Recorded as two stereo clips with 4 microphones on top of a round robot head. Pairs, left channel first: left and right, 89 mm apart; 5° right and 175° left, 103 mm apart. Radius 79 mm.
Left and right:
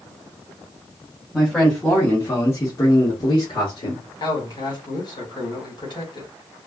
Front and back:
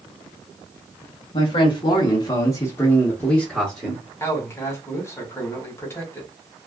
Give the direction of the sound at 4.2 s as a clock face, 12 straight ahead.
10 o'clock.